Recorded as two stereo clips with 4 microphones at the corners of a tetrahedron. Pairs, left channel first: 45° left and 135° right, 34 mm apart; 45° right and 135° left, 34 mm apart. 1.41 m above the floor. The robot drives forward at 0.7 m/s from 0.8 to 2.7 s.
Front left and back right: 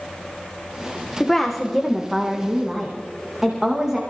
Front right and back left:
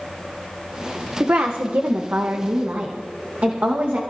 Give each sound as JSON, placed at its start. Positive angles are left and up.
{"t": 1.2, "sound": "a woman speaking", "azimuth_deg": 120, "distance_m": 0.9}